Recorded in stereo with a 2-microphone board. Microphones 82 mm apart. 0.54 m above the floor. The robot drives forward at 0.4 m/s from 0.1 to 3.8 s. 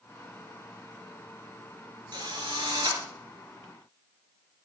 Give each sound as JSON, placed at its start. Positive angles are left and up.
{"t": 2.1, "sound": "a drill", "side_deg": -60, "distance_m": 3.5}